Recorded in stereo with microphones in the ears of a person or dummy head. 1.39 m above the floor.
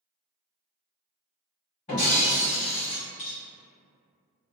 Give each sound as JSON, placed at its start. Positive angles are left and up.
{"t": 1.9, "sound": "breaking glass", "side_deg": 35, "distance_m": 1.5}